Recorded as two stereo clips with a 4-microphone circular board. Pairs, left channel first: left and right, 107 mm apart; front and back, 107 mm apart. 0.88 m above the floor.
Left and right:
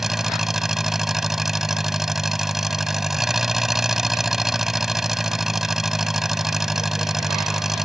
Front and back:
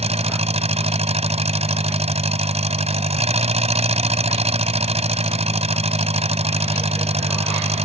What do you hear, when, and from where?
0.0 s an engine running: 175° right